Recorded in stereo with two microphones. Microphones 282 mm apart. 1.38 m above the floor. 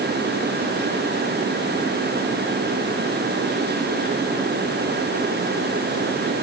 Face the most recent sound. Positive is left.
No sound to turn to.